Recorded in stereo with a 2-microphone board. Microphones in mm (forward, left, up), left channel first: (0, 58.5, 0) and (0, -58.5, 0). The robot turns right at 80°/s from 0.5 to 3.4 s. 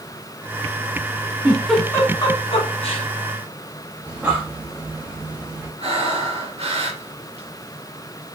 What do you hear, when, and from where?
1.4 s a giggle: 15° right (ahead or behind), 1.4 m; by 3.0 s 50° left (ahead or behind), 1.4 m
4.0 s breathing: 15° right (ahead or behind), 1.3 m
5.8 s breathing: 60° right (ahead or behind), 1.8 m